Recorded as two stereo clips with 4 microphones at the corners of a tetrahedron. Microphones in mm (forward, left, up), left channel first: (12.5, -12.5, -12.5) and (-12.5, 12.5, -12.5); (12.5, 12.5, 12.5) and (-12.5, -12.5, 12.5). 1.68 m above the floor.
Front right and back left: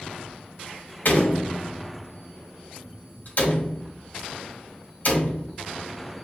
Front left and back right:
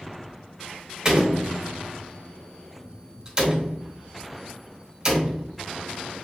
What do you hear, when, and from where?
1.1 s a door slam: 65° right, 1.8 m